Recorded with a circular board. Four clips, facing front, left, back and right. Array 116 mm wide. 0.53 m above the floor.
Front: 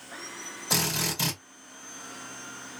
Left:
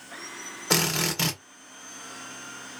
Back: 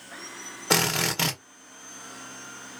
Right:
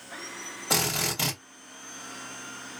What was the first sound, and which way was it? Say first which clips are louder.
A drill: left 3 dB, back 6 dB; 165° left.